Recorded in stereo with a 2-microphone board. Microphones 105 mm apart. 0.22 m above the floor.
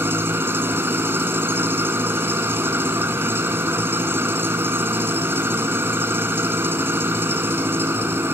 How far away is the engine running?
About 1.2 m.